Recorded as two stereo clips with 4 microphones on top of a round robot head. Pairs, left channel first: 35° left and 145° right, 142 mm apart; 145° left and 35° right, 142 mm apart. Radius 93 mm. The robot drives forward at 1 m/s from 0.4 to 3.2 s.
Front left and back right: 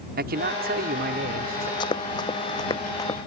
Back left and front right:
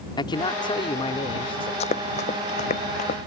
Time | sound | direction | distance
0.2 | a man speaking | 155° right | ?
1.8 | running footsteps | 95° left | ?